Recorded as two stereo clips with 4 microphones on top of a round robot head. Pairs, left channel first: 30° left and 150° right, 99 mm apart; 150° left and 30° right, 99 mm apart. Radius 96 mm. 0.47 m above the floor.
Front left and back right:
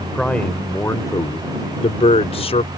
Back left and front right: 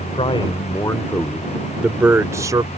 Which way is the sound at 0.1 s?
115° left.